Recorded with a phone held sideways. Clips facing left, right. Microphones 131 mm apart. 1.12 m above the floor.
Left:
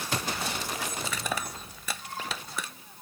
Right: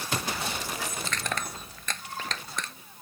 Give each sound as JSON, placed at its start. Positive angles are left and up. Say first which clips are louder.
{"t": 1.0, "sound": "crushing", "louder": "even", "side_deg": 10}